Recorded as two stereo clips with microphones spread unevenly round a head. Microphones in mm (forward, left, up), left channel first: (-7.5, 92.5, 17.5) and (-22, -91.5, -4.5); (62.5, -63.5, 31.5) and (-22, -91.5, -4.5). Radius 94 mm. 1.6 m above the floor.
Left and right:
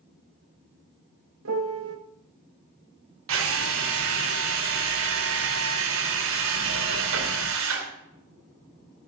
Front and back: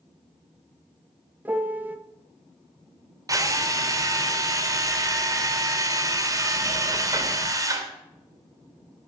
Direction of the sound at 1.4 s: 80° right.